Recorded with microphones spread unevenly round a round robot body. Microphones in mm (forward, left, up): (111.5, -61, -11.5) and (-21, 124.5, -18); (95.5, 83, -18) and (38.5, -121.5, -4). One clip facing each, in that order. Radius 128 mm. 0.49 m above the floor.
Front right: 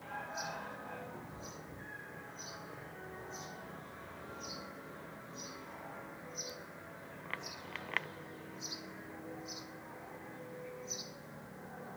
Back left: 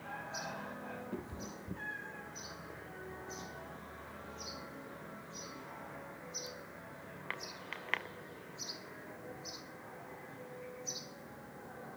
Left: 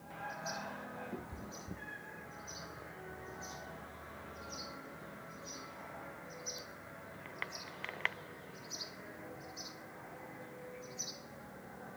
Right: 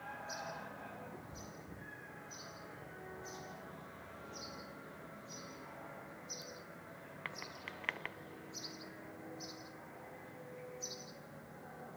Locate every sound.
1.1 s a cat meowing: 115° left, 2 m